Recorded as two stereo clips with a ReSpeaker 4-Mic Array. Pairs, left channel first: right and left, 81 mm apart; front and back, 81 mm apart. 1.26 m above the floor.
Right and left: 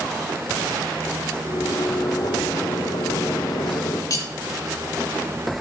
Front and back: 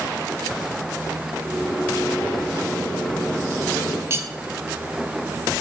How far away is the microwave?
About 2.5 m.